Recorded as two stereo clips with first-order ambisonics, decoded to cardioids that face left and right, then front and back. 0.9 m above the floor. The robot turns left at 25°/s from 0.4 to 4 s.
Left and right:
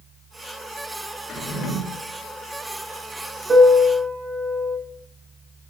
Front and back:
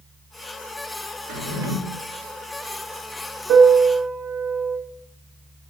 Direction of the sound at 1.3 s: 160° left.